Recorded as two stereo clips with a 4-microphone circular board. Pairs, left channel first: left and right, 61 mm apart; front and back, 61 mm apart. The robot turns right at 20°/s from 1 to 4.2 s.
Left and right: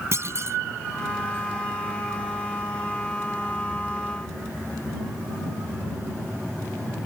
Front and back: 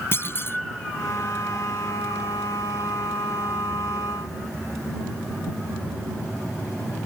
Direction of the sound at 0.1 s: 50° right.